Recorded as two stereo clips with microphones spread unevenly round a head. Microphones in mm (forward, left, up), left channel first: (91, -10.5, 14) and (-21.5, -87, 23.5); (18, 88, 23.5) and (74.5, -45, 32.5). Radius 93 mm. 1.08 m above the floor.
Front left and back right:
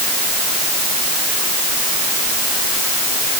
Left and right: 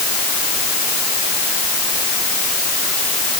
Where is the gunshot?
No gunshot in this recording.